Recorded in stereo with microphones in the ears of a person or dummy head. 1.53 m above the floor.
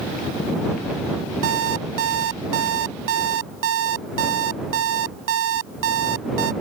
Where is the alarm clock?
75° right (ahead or behind).